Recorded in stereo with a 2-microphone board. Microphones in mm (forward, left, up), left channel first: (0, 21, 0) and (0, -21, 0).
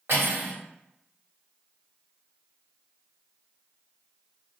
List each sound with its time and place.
0.1 s cutlery clinking: 65° right (ahead or behind), 1.5 m